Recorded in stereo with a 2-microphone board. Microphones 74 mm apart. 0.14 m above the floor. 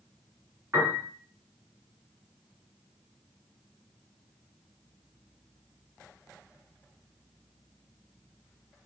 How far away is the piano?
About 1.4 m.